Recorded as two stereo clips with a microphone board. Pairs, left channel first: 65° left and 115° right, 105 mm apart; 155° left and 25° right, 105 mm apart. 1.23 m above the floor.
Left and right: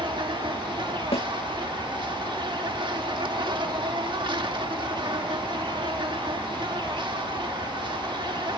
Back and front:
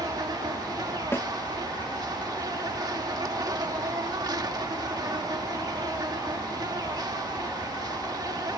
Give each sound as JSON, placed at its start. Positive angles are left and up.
{"t": 0.0, "sound": "an insect", "azimuth_deg": -75}
{"t": 1.1, "sound": "a snare drum", "azimuth_deg": 90}